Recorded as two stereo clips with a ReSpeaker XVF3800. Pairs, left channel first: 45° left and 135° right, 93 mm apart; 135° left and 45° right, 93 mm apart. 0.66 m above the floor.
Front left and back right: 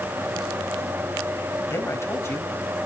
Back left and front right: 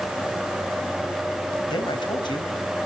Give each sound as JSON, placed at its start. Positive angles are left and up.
{"t": 1.7, "sound": "a man speaking", "azimuth_deg": 105, "distance_m": 3.5}